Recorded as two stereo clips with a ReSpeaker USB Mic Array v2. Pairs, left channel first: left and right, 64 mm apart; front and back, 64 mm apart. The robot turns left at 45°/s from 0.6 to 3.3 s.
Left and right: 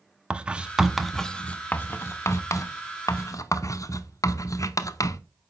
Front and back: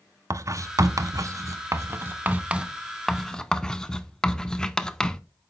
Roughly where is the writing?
Behind.